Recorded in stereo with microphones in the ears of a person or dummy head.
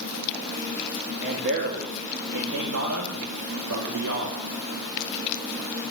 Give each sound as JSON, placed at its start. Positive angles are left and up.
{"t": 1.2, "sound": "a man speaking", "side_deg": -50, "distance_m": 2.5}